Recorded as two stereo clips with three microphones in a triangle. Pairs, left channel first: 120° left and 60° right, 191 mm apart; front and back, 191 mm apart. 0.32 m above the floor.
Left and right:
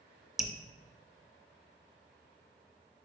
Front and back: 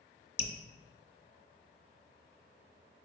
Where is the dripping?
25° left, 0.6 m.